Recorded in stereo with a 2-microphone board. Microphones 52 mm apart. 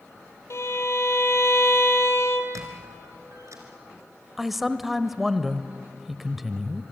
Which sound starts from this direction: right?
A squeak, at 2.5 s.